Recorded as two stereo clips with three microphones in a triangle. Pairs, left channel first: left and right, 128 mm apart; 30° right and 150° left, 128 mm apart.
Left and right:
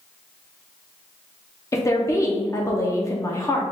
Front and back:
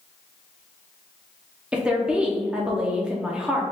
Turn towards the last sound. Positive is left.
turn(degrees=80)